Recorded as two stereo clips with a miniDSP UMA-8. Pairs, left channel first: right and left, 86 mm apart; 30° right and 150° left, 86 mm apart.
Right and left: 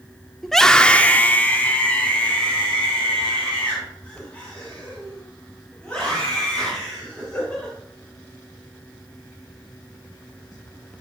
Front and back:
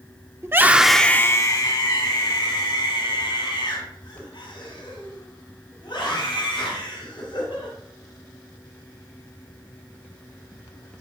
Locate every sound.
0.4 s a scream: 175° right, 1.0 m; by 7.7 s 15° right, 8 m